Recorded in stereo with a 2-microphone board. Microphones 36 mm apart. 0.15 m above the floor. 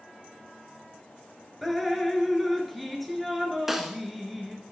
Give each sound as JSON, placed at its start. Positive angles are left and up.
{"t": 1.6, "sound": "dripping", "side_deg": 0, "distance_m": 1.2}
{"t": 3.7, "sound": "a snare drum", "side_deg": -10, "distance_m": 0.8}